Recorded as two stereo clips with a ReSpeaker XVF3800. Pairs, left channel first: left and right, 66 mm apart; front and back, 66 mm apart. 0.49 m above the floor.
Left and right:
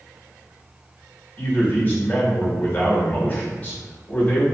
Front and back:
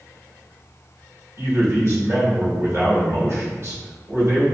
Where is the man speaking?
155° left, 1.3 m.